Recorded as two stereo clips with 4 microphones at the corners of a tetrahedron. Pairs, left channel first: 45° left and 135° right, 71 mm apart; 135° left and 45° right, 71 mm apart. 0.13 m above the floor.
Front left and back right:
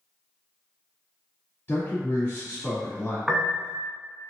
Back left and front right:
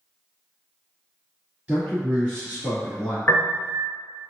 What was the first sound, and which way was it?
A man speaking, 10° left.